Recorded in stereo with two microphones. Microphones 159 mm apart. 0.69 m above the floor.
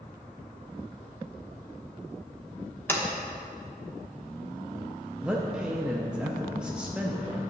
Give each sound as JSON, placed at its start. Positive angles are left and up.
{"t": 2.9, "sound": "a sliding door", "side_deg": 15, "distance_m": 1.2}
{"t": 5.2, "sound": "a man speaking", "side_deg": -5, "distance_m": 0.7}